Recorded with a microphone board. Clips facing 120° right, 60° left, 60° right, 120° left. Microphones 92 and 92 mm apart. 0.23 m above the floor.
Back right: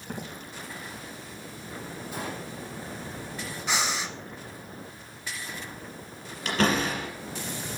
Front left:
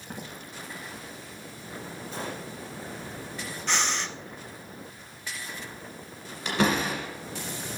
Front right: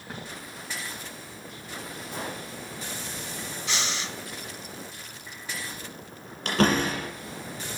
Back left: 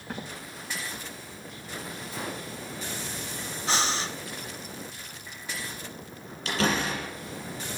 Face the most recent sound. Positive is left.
turn(degrees=-25)